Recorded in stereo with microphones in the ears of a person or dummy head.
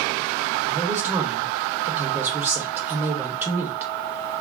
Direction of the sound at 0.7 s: 5° right (ahead or behind).